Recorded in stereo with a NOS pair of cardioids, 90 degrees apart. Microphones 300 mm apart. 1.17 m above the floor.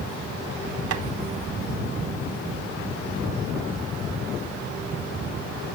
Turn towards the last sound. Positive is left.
turn(degrees=-60)